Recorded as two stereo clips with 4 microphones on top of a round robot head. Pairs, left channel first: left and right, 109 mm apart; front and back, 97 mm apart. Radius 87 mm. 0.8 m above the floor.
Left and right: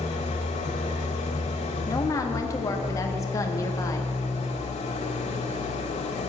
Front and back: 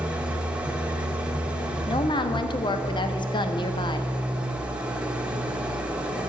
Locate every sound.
0.0 s an engine running: 100° left, 1.6 m
1.9 s a woman speaking: 25° left, 1.3 m